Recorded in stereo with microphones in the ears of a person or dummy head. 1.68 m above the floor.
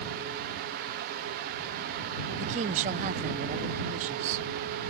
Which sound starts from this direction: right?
A woman speaking, at 2.4 s.